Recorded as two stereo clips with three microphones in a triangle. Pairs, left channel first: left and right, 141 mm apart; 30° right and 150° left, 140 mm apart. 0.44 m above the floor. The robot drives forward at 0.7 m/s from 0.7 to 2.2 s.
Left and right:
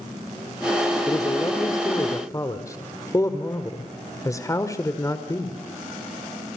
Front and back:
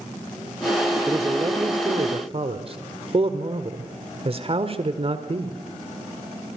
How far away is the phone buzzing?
No phone buzzing in this recording.